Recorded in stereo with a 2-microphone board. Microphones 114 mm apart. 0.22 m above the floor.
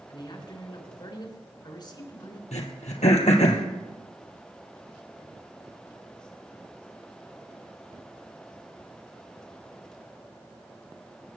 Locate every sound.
0.1 s a man speaking: 40° left (ahead or behind), 3 m
2.5 s throat clearing: 80° left, 2.5 m